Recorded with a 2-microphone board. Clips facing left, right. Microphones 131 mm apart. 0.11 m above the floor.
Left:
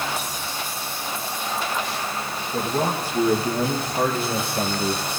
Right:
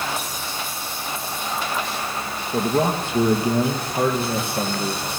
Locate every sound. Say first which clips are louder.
2.5 s a man speaking: right 4 dB; 25° right (ahead or behind), 2.5 m; by 5.0 s centre (ahead or behind), 3 m